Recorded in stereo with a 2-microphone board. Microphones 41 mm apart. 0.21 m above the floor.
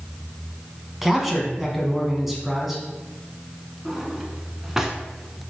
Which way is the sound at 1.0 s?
5° right (ahead or behind).